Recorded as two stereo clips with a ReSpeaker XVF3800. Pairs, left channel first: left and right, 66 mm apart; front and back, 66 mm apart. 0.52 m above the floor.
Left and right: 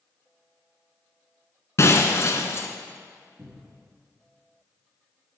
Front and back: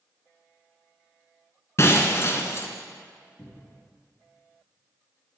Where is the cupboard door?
45° right, 4.5 m.